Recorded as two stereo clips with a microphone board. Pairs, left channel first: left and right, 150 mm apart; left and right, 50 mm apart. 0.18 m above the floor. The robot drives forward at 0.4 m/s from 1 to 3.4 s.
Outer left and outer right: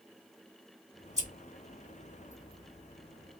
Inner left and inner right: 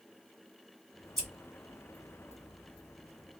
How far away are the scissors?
About 1.9 m.